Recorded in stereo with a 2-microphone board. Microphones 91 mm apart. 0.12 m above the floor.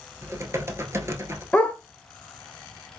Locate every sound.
0.2 s typing on a keyboard: 30° right (ahead or behind), 0.8 m
1.5 s a dog barking: 15° left (ahead or behind), 0.8 m